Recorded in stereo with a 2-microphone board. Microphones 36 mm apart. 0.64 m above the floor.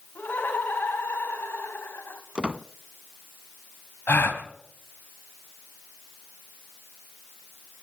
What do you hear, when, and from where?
0.1 s laughter: 60° left (ahead or behind), 4.5 m; by 2.2 s 80° left, 3.5 m
2.4 s a squeak: 25° right (ahead or behind), 0.6 m
4.1 s a gasp: 65° left (ahead or behind), 2 m